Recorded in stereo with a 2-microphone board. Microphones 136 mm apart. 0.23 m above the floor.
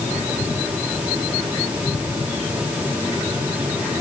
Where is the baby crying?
I don't hear a baby crying.